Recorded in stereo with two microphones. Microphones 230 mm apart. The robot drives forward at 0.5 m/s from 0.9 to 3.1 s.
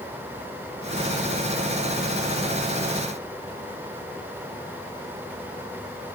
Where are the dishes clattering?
I don't hear dishes clattering.